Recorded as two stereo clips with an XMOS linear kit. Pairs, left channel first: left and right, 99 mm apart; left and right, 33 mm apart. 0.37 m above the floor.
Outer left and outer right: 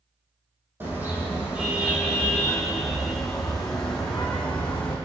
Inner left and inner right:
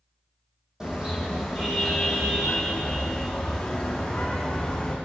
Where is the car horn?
20° right (ahead or behind), 7 m; by 5.0 s 15° left (ahead or behind), 9.5 m.